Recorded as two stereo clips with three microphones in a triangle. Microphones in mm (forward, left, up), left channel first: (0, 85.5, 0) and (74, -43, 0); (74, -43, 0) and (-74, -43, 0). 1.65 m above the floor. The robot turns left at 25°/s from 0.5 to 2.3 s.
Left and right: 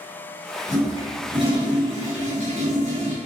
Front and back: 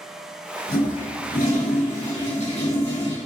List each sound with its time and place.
0.7 s a toilet flushing: 5° left, 3.5 m; by 3.2 s 35° right, 3.5 m